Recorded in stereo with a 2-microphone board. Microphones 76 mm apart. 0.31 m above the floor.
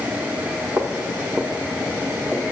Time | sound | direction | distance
0.8 | footsteps | 30° right (ahead or behind) | 1.1 m